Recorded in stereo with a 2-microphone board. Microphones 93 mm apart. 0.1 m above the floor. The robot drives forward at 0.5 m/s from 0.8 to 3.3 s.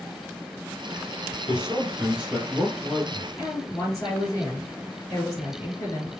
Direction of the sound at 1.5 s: 10° right (ahead or behind).